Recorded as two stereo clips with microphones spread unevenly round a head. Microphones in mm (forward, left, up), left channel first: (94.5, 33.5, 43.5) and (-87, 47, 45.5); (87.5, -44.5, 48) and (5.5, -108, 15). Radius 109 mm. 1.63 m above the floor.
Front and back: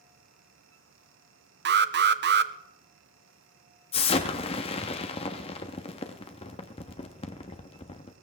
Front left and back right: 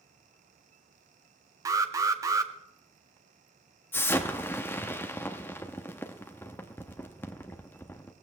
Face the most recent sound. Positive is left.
turn(degrees=35)